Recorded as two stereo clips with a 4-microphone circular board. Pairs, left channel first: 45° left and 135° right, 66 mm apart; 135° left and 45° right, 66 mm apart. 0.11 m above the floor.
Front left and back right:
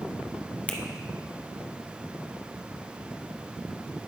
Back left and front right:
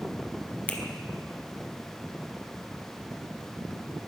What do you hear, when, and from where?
0.7 s a finger snap: 95° left, 1.3 m